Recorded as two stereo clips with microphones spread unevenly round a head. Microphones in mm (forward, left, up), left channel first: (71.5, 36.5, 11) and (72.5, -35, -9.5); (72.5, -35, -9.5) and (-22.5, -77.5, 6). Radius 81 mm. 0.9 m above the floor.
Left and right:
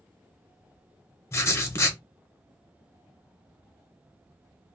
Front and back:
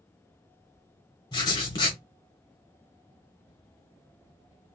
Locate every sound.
1.3 s writing: 80° left, 0.9 m